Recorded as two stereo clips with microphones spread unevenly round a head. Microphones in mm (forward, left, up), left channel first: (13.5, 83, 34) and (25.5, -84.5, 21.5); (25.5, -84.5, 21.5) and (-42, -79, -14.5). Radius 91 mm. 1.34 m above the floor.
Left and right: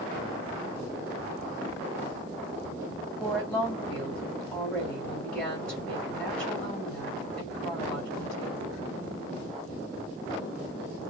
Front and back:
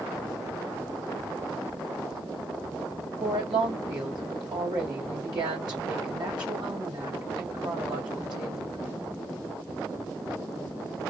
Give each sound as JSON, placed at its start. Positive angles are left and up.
{"t": 3.2, "sound": "a woman speaking", "azimuth_deg": 175, "distance_m": 2.5}